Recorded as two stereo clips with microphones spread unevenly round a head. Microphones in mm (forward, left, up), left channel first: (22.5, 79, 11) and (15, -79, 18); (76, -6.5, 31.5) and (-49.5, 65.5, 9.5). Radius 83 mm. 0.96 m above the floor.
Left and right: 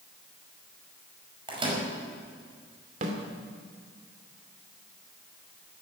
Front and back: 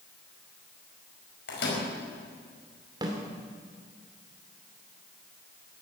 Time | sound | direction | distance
1.5 | a microwave | 35° right | 5 m
3.0 | a snare drum | 140° right | 2.5 m